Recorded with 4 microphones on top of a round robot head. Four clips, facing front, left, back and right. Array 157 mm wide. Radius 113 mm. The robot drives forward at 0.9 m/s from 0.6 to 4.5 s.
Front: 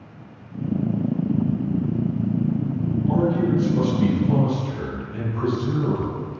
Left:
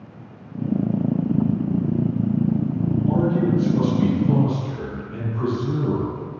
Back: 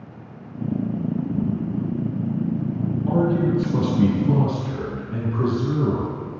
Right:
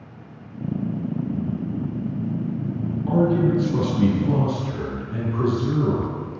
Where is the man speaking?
130° right, 7.5 m; by 6.2 s 140° right, 8.5 m.